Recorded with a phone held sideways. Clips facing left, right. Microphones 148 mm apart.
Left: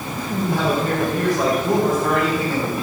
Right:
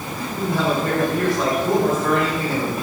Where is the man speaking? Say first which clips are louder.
Left 1 dB; 20° left (ahead or behind), 3 m; by 2.7 s centre (ahead or behind), 4 m.